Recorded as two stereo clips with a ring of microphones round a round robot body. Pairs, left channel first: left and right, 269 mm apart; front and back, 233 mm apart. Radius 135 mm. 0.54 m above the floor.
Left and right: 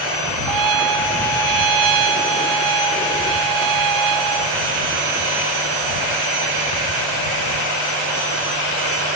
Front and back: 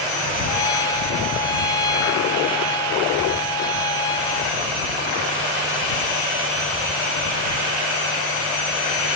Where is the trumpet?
75° right.